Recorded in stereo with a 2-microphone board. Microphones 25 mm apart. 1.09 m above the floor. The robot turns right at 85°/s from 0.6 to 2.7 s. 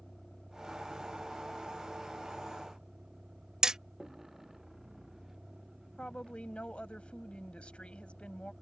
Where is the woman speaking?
55° left (ahead or behind).